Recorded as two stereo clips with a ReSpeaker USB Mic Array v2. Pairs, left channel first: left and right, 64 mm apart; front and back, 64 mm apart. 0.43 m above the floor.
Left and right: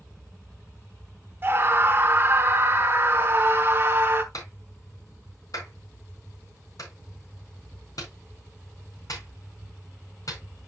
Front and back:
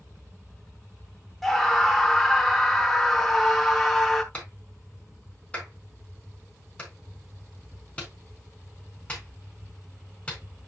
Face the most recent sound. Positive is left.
turn(degrees=70)